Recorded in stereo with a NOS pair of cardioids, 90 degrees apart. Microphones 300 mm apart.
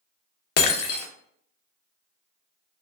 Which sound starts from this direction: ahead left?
Breaking glass, at 0.6 s.